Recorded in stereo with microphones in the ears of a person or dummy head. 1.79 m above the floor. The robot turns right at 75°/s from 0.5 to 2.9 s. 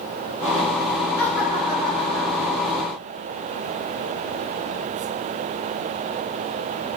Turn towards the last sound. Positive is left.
turn(degrees=-65)